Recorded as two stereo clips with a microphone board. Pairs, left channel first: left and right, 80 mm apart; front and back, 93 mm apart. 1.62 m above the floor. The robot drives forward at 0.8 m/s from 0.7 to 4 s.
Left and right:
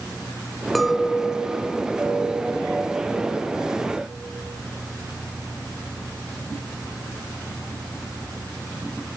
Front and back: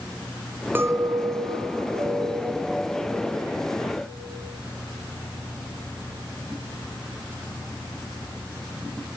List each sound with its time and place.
0.8 s a clink: straight behind, 0.5 m